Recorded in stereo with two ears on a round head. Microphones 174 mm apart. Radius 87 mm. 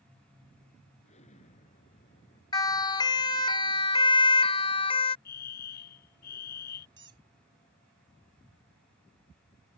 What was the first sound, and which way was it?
An explosion, 40° left (ahead or behind).